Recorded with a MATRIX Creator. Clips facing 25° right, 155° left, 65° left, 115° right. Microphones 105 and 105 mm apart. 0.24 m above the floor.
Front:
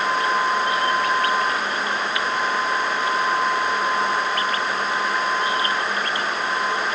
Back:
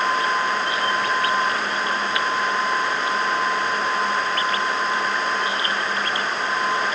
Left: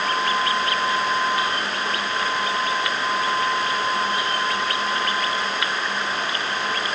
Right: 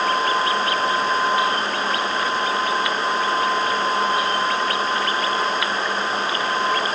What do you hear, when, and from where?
Only background noise.